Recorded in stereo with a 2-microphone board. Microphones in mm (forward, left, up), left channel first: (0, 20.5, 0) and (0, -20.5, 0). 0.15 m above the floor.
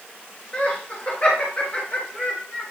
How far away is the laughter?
About 2.5 m.